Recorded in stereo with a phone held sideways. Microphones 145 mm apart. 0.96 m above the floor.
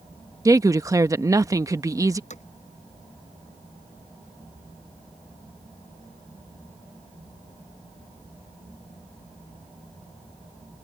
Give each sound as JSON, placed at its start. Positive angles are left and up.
{"t": 0.5, "sound": "a woman speaking", "side_deg": -20}
{"t": 2.3, "sound": "hammering", "side_deg": 55}